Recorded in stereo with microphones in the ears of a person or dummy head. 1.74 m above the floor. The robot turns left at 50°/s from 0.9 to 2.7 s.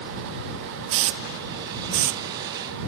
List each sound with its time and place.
0.9 s a hiss: 75° right (ahead or behind); by 2.2 s 40° right (ahead or behind)